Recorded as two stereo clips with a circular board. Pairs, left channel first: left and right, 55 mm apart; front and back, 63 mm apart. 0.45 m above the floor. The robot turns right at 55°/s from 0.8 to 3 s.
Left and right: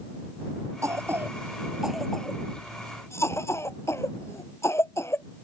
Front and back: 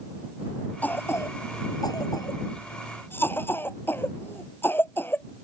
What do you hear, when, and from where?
0.8 s a cough: 65° right; by 5.2 s 55° left